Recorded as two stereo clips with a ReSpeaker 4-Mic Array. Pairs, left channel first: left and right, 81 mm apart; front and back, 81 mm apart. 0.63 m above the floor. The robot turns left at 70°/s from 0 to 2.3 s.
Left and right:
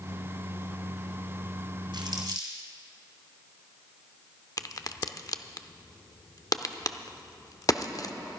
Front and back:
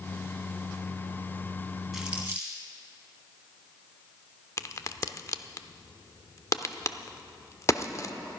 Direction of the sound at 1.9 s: 90° right.